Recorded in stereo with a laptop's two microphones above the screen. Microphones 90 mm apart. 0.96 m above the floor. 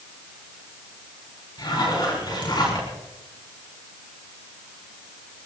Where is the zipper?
55° left (ahead or behind), 5 m.